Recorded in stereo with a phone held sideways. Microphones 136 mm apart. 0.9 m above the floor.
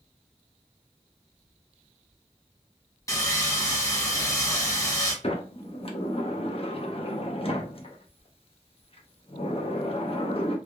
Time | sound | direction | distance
3.1 | sawing | 25° left (ahead or behind) | 1.2 m
5.2 | a sliding door | 45° left (ahead or behind) | 0.7 m